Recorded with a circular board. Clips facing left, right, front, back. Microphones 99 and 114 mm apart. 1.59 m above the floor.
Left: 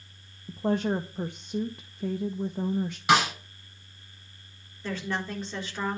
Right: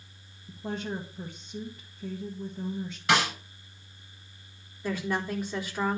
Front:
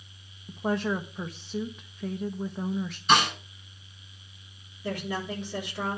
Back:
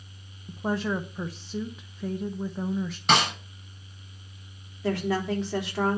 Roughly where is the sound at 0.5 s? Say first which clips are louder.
Left 8 dB, even; left.